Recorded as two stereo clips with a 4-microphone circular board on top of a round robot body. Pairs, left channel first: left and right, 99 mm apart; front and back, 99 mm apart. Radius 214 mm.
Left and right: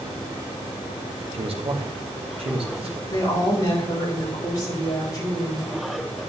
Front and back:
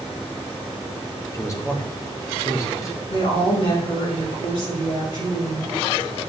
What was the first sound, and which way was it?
A man speaking, 60° right.